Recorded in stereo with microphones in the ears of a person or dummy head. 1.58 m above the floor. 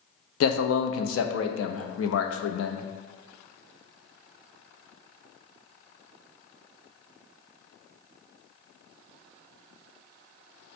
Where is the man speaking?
80° left, 0.6 m.